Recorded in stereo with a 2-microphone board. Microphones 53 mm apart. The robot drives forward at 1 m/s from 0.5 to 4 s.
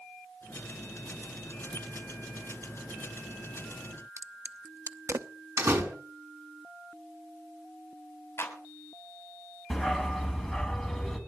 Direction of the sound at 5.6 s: 70° right (ahead or behind).